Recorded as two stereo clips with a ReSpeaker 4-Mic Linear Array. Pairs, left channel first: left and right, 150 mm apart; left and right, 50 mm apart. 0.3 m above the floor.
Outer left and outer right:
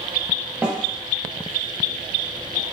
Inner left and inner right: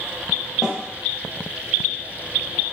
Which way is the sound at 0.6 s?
5° right (ahead or behind).